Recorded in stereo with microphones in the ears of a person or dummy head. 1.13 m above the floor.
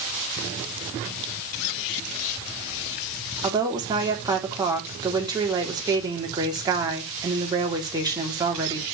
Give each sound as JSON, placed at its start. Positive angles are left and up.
{"t": 3.4, "sound": "a woman speaking", "side_deg": -25, "distance_m": 3.0}